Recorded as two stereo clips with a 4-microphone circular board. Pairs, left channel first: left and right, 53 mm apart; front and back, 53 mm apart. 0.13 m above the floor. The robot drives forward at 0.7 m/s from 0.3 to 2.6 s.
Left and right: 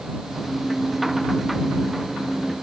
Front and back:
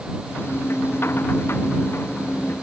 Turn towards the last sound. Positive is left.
No sound to turn to.